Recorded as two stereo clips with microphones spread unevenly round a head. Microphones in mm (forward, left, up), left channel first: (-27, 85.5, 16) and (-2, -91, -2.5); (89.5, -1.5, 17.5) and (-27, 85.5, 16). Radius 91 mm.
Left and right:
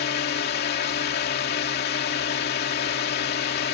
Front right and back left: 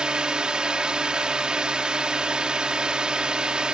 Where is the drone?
60° left.